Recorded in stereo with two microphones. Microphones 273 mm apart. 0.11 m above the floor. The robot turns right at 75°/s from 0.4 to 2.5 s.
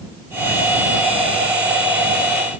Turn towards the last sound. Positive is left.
No sound to turn to.